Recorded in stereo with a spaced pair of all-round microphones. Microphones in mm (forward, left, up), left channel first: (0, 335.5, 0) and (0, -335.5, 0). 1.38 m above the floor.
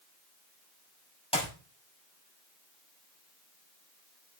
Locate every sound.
1.3 s a clap: 10° left (ahead or behind), 6 m